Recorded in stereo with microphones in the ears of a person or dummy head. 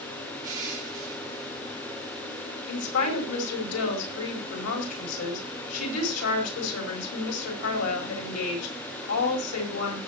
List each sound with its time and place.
0.4 s crushing: 25° right (ahead or behind), 8 m
2.7 s a woman speaking: 85° left, 4.5 m